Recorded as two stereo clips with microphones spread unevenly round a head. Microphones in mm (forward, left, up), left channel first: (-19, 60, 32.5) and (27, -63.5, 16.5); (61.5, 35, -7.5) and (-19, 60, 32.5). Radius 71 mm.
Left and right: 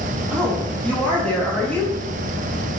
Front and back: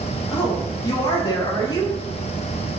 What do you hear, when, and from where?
0.3 s a woman speaking: 30° left, 3.5 m